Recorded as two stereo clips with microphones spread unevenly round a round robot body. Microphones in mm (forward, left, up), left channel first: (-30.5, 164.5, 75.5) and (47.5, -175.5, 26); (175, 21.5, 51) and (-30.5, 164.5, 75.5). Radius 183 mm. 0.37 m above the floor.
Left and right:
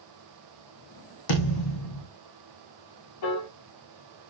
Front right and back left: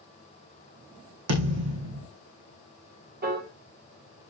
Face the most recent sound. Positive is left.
turn(degrees=95)